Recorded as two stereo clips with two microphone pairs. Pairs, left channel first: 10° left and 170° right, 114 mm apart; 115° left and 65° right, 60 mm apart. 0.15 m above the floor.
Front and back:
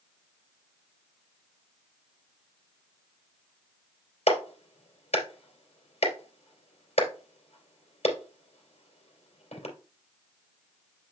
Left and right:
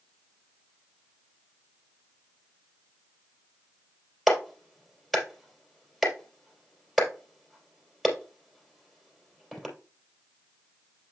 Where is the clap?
25° left, 3 m.